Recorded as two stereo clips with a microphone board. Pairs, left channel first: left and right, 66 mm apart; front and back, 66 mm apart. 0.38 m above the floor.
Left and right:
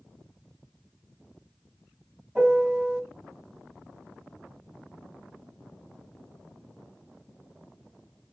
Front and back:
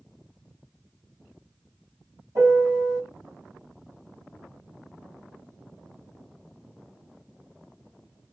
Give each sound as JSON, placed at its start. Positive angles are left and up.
{"t": 2.4, "sound": "a piano", "azimuth_deg": -155, "distance_m": 2.5}